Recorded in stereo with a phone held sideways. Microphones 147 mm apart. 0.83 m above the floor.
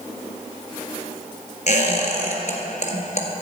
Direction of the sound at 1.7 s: 55° left (ahead or behind).